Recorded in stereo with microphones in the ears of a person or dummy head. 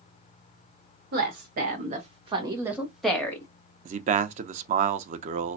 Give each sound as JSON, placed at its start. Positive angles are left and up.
{"t": 1.1, "sound": "a woman speaking", "side_deg": -60, "distance_m": 2.0}
{"t": 3.9, "sound": "a man speaking", "side_deg": -40, "distance_m": 0.6}